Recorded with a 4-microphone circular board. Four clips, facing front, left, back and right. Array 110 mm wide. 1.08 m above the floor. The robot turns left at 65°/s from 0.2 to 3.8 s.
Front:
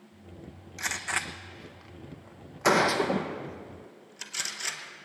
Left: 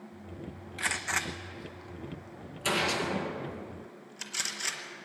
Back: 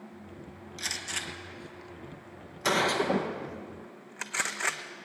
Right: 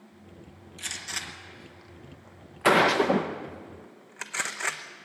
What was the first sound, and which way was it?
A gunshot, 60° left.